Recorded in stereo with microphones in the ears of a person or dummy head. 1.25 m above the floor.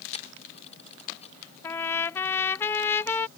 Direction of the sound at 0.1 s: 35° left (ahead or behind).